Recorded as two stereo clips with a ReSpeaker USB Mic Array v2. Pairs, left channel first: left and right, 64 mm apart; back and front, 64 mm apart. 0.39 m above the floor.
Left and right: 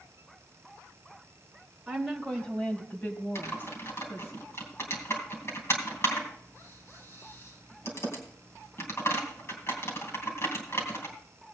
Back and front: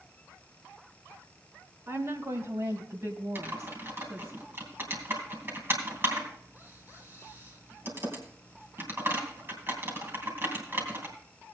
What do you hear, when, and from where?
1.9 s a woman speaking: 5° right, 1.9 m; by 4.3 s 45° left, 4 m
3.4 s typing on a keyboard: 50° left, 3 m